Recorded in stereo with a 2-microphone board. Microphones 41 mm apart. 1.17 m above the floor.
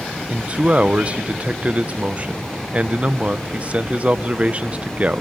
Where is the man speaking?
30° right (ahead or behind), 0.8 m.